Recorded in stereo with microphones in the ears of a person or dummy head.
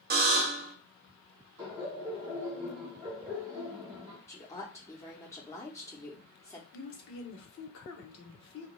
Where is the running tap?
No running tap in this recording.